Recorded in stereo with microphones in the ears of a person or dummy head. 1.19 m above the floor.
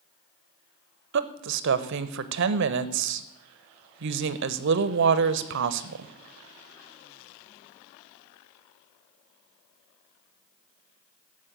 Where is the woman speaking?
65° right (ahead or behind), 0.7 m.